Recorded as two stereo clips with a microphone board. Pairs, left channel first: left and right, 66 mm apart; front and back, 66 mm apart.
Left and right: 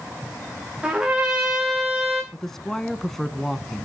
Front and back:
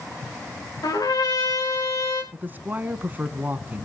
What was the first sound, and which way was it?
A trumpet, 10° right.